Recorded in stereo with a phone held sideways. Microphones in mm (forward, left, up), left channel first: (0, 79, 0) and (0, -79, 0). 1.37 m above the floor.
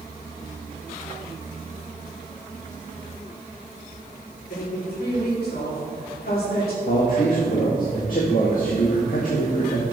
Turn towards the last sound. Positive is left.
turn(degrees=60)  # may be behind; listen again after turning